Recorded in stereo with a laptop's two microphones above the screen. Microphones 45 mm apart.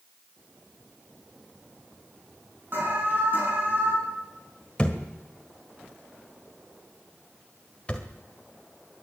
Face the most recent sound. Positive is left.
turn(degrees=25)  # may be behind; listen again after turning